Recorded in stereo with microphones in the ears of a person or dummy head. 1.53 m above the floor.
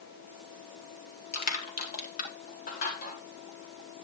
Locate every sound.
1.3 s crushing: 60° left (ahead or behind), 3.5 m